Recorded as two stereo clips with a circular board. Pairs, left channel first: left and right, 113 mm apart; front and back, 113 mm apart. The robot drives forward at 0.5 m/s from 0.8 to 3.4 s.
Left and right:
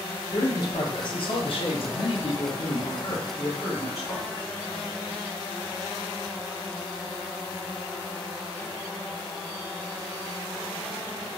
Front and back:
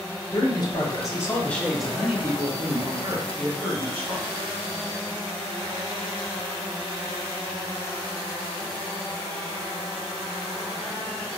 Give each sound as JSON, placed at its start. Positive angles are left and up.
{"t": 0.3, "sound": "a man speaking", "azimuth_deg": 45, "distance_m": 0.8}